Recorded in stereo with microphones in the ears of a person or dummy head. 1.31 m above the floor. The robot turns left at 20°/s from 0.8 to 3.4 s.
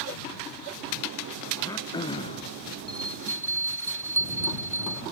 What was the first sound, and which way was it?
Throat clearing, 15° left (ahead or behind).